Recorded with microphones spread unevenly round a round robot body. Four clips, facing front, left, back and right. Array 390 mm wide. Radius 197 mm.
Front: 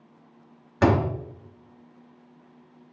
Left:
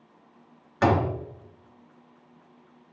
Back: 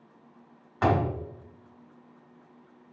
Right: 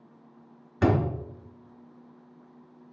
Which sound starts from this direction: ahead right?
A door slam, at 0.8 s.